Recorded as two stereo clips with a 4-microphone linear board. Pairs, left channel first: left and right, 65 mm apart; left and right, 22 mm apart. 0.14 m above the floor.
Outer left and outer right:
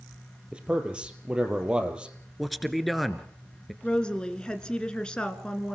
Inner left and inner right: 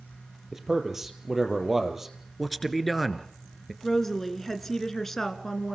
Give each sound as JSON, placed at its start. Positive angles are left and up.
{"t": 0.5, "sound": "a man speaking", "side_deg": -15, "distance_m": 3.0}
{"t": 2.4, "sound": "a man speaking", "side_deg": 0, "distance_m": 1.8}
{"t": 3.8, "sound": "a woman speaking", "side_deg": 15, "distance_m": 2.0}